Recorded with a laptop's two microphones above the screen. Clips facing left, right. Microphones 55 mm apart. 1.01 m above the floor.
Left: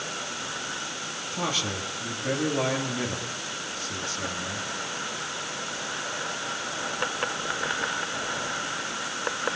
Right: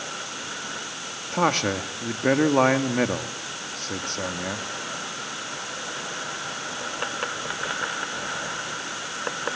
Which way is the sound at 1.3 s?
50° right (ahead or behind).